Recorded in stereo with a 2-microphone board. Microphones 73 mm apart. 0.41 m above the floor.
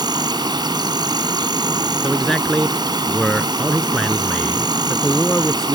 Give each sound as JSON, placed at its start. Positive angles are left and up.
{"t": 0.0, "sound": "an insect", "side_deg": -75}
{"t": 2.0, "sound": "a man speaking", "side_deg": 10}